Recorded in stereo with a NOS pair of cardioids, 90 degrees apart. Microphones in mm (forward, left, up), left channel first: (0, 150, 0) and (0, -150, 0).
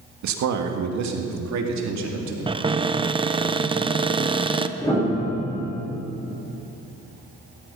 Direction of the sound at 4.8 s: 10° left.